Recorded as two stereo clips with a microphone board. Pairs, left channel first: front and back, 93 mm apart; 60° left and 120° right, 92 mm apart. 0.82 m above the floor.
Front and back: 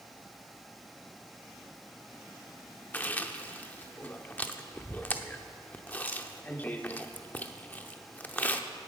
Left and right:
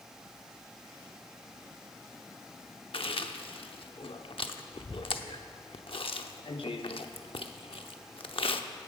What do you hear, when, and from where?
2.9 s chewing: 70° left, 0.7 m